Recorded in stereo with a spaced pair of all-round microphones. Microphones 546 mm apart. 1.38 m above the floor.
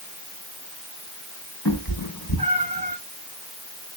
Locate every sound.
1.6 s a cat meowing: 40° left (ahead or behind), 4 m